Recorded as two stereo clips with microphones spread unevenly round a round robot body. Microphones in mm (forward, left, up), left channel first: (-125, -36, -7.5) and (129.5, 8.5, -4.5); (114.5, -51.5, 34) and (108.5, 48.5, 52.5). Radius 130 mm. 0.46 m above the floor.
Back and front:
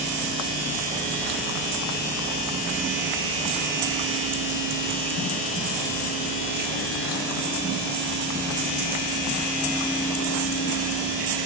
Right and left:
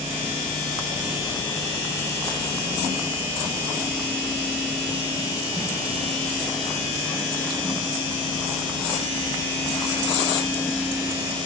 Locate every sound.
Only background noise.